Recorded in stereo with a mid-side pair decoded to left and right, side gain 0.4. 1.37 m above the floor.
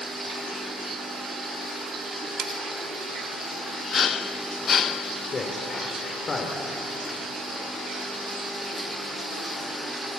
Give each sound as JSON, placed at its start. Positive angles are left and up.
{"t": 2.4, "sound": "cutlery clinking", "azimuth_deg": -55, "distance_m": 1.8}
{"t": 5.3, "sound": "a man speaking", "azimuth_deg": 45, "distance_m": 3.5}